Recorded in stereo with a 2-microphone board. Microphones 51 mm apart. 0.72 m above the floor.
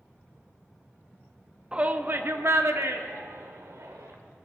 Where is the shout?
15° right (ahead or behind), 0.7 m; by 4.2 s 75° right (ahead or behind), 2.5 m.